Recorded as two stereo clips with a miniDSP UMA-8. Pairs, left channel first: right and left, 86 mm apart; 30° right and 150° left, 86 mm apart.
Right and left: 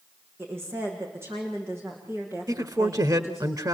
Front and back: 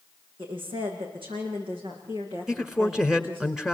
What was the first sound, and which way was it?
A woman speaking, 155° left.